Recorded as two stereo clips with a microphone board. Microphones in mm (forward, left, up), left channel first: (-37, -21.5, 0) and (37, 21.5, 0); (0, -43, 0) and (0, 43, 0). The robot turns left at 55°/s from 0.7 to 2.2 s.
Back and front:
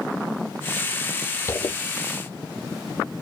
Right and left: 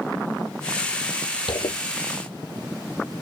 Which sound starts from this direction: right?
A zipper, at 1.5 s.